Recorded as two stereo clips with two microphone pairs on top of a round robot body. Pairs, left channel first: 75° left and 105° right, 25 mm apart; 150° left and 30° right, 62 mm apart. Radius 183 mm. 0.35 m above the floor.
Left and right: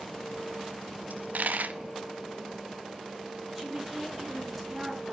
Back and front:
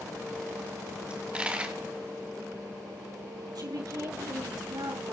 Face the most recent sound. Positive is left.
turn(degrees=-20)